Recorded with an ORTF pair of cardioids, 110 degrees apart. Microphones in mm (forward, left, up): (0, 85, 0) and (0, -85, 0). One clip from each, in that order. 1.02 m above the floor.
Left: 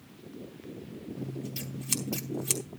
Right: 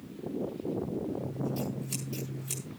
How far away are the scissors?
About 4.5 m.